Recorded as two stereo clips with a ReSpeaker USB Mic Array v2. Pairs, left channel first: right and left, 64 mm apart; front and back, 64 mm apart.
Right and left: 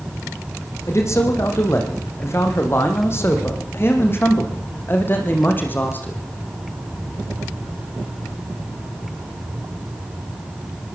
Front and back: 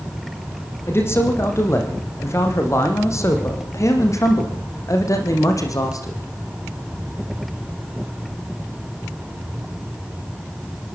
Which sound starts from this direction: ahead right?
A man speaking, at 0.9 s.